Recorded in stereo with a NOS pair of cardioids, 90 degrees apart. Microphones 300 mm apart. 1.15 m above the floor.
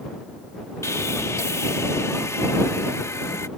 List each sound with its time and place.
0.8 s sawing: 10° left